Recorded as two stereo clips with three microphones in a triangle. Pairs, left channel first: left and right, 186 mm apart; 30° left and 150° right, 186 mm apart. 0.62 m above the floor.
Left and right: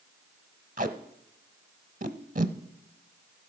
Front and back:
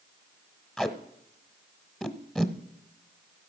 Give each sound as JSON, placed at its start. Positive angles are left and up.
{"t": 0.8, "sound": "tape being pulled", "azimuth_deg": -55, "distance_m": 0.7}